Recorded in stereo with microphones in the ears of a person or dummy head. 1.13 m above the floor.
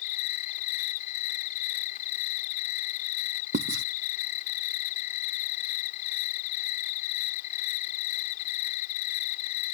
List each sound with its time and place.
0.0 s an insect: 50° left (ahead or behind)
3.5 s writing: 60° right (ahead or behind)